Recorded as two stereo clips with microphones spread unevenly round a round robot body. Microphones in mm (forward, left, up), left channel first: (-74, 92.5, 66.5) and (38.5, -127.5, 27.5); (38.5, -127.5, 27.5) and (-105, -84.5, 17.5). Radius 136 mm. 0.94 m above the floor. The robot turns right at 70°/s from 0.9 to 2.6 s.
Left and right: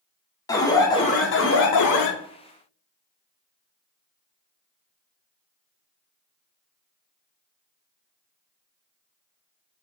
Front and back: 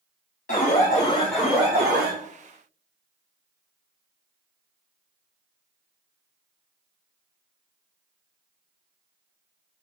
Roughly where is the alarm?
Ahead left.